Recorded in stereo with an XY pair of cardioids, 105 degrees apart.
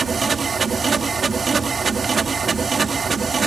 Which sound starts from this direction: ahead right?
A machine running, at 0.0 s.